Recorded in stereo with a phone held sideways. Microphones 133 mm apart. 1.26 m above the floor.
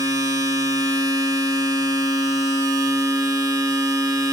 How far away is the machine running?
About 2.5 m.